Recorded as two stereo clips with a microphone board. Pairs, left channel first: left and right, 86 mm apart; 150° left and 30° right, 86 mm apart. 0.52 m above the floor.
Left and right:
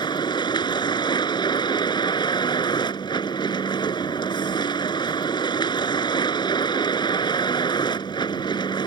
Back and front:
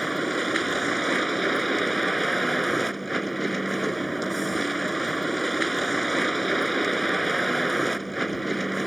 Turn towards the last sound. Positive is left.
turn(degrees=60)